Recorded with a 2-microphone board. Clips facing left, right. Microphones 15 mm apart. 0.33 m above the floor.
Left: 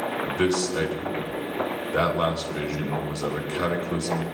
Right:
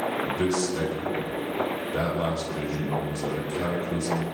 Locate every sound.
0.3 s a man speaking: 60° left (ahead or behind), 3 m